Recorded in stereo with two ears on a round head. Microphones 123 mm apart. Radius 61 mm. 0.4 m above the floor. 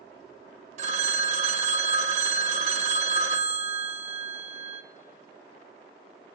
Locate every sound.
0.8 s a phone ringing: 55° right (ahead or behind), 0.7 m